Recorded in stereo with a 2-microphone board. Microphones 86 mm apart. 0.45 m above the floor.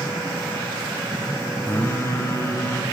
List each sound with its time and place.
1.6 s singing: 30° left (ahead or behind), 0.8 m